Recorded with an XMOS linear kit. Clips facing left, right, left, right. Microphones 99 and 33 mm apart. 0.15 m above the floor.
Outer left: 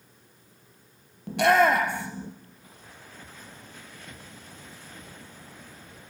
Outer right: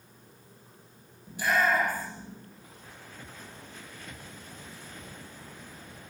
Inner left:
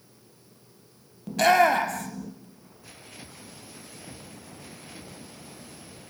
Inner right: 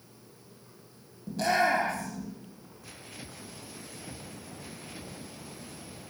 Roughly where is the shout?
Left.